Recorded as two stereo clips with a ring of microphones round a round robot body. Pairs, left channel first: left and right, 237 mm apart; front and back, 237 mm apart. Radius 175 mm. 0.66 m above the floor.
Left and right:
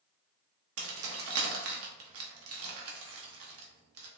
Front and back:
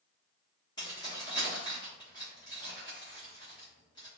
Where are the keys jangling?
75° right, 0.6 m.